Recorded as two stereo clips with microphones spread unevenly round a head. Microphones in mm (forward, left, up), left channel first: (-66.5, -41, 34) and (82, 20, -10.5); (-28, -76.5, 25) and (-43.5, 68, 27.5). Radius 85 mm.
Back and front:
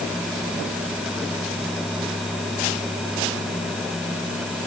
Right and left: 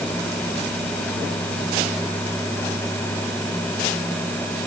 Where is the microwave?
No microwave in this recording.